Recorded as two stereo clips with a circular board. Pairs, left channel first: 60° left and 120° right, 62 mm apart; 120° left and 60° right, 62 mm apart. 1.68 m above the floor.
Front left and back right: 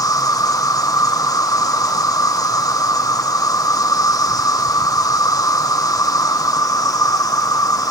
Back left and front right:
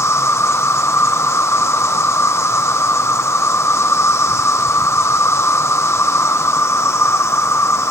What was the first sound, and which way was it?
An insect, 75° left.